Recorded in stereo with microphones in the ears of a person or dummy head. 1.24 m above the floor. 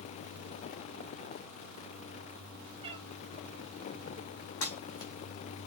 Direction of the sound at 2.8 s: 25° right (ahead or behind).